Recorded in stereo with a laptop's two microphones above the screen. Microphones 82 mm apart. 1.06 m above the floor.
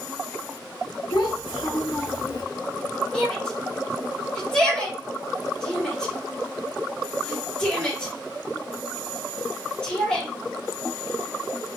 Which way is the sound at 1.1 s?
75° left (ahead or behind).